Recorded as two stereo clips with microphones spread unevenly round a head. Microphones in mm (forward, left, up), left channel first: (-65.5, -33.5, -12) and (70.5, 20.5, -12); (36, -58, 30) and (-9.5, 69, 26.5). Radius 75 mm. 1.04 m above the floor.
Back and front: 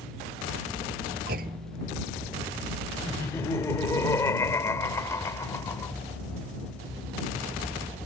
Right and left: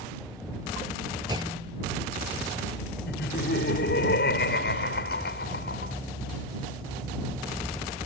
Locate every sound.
1.3 s a clunk: 50° left
3.1 s laughter: 85° right